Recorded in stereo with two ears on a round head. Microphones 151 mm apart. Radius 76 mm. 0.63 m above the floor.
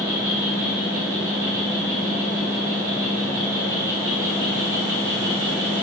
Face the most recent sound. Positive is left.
turn(degrees=-20)  # may be behind; listen again after turning